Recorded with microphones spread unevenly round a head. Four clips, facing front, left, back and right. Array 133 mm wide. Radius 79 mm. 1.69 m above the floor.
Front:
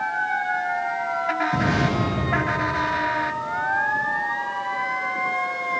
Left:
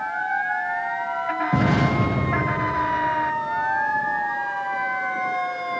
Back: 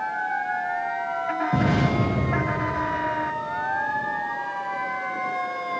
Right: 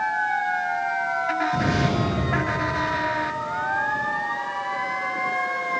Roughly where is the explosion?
Left.